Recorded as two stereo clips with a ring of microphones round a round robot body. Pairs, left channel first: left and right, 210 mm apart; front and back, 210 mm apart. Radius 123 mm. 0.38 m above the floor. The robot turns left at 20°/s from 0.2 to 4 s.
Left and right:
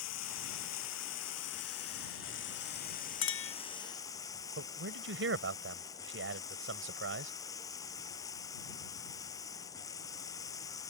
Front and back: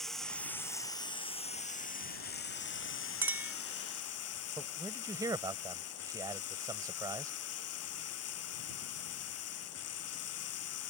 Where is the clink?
100° left; by 3.5 s 95° left.